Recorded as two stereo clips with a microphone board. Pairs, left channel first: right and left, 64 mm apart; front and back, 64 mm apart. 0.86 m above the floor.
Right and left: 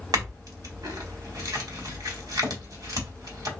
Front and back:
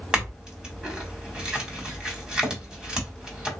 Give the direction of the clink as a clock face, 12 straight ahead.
9 o'clock.